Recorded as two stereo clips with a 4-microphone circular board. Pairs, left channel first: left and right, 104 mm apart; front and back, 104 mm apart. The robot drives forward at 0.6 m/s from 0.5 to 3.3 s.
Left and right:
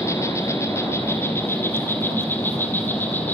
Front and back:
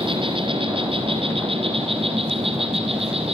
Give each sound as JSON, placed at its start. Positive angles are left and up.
{"t": 0.0, "sound": "an insect", "azimuth_deg": 150, "distance_m": 2.5}